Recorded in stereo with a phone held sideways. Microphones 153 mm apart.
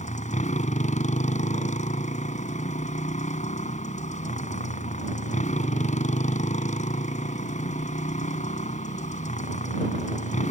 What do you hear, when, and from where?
0.0 s a motorcycle: 55° left (ahead or behind)